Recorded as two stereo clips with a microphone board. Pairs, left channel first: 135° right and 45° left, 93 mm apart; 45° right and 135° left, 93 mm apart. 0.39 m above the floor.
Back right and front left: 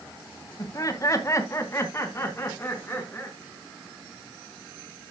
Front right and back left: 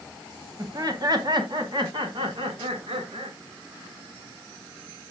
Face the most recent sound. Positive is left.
turn(degrees=155)